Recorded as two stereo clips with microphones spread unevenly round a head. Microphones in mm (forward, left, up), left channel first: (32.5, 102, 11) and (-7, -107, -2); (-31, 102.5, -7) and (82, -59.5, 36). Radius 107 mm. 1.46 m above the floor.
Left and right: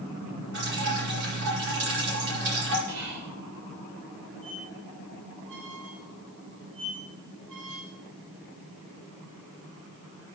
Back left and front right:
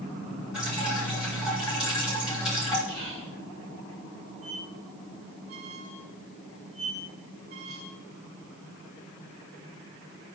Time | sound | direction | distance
0.5 | dripping | 140° right | 7 m
2.9 | whispering | 120° right | 5 m
4.4 | a squeak | 100° right | 5.5 m